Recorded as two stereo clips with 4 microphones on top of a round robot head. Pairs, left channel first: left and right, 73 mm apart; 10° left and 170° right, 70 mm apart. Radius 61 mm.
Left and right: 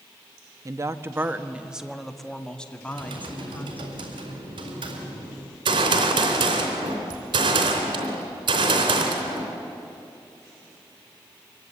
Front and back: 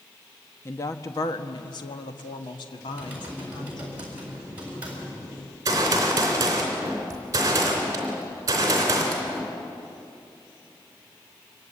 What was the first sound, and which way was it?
A woman speaking, 50° right.